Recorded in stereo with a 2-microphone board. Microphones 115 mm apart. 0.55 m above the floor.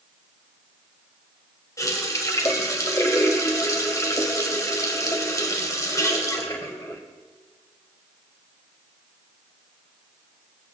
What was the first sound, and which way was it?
A running tap, 30° left (ahead or behind).